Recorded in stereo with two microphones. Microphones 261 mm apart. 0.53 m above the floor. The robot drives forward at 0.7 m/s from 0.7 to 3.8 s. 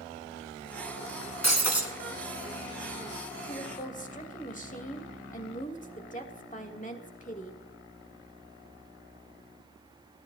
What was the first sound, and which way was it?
Breaking glass, 75° left (ahead or behind).